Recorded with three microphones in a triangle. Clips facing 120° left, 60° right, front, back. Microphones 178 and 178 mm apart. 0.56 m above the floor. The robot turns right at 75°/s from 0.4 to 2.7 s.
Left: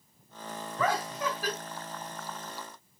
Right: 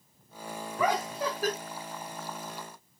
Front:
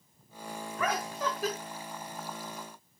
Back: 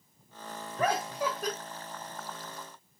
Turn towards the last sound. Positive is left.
turn(degrees=5)